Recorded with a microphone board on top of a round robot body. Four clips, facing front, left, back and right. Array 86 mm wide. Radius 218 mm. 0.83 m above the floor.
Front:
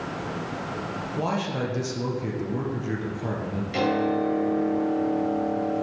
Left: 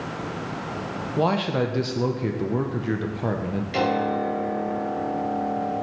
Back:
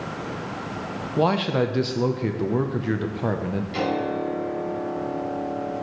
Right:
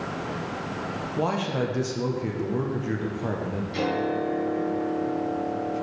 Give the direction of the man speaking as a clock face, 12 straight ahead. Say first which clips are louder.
Left 4 dB, back 7 dB; 7 o'clock.